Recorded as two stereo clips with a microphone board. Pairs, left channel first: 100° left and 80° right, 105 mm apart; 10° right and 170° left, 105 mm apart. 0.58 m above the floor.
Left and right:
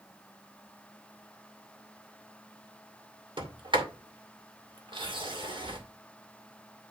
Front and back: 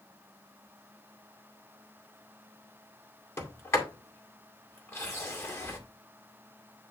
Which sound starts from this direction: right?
A sliding door, at 3.4 s.